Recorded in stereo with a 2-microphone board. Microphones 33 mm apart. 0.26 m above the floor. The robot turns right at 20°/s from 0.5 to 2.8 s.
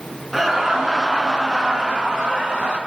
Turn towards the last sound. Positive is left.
turn(degrees=-130)